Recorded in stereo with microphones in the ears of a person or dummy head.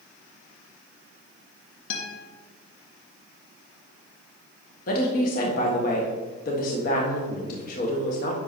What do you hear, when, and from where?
1.9 s a guitar: 70° left (ahead or behind), 2 m
4.9 s a woman speaking: 55° left (ahead or behind), 1.6 m